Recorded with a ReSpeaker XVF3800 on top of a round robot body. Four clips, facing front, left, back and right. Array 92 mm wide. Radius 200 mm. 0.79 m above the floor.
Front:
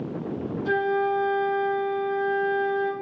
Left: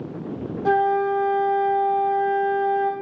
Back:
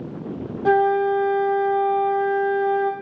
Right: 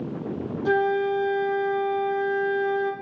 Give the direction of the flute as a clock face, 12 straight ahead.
7 o'clock.